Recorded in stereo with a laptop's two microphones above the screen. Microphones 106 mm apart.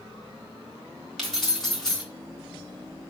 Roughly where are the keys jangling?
Centre.